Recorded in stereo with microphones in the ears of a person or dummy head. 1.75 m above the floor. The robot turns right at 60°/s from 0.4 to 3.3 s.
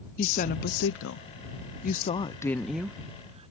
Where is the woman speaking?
45° left; by 3.5 s 140° right.